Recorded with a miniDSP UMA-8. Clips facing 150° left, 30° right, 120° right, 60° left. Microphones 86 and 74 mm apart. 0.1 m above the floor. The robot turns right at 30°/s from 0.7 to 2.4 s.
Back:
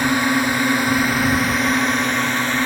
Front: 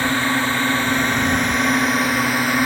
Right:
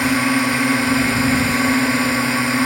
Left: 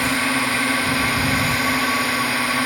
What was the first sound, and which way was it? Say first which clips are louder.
A drone: back 2 dB, right 4 dB; 160° right.